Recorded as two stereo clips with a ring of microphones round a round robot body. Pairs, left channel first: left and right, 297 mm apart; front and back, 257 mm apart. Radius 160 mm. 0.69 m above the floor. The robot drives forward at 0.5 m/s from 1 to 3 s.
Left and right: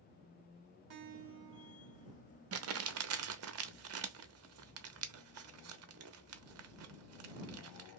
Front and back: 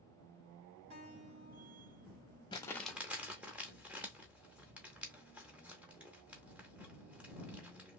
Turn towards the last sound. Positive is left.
turn(degrees=-95)